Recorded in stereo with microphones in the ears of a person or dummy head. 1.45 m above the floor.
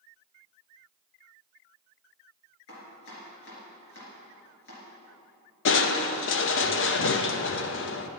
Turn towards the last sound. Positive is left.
turn(degrees=55)  # may be behind; listen again after turning